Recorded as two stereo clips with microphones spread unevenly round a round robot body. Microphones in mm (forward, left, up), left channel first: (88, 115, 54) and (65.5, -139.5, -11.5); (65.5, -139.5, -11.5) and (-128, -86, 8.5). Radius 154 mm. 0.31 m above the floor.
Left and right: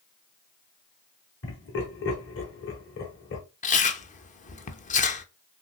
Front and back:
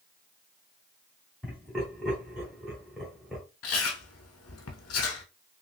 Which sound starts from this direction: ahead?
Chewing, at 3.6 s.